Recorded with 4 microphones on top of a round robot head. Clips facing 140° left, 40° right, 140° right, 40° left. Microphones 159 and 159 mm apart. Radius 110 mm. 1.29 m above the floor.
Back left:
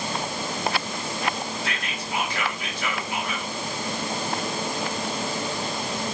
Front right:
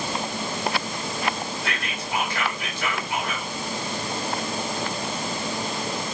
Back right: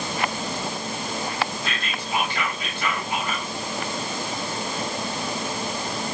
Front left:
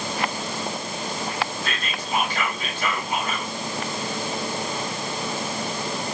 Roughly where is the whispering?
Ahead.